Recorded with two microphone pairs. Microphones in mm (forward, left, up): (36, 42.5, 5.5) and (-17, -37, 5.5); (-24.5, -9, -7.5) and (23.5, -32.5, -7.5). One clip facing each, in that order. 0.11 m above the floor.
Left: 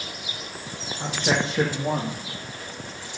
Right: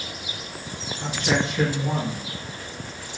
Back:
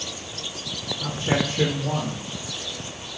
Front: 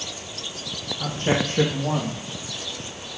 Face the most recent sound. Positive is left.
turn(degrees=0)